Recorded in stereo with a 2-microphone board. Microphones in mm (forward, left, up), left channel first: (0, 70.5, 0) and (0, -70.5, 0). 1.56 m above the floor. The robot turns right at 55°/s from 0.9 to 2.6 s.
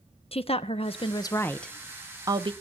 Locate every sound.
0.3 s a woman speaking: 130° left, 0.8 m; by 2.5 s 140° right, 0.8 m